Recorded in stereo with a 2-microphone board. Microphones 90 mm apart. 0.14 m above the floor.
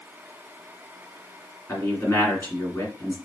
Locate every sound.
1.7 s a man speaking: 25° left (ahead or behind), 1.7 m